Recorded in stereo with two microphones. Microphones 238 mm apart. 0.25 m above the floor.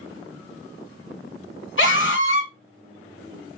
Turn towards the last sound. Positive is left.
turn(degrees=55)  # may be behind; listen again after turning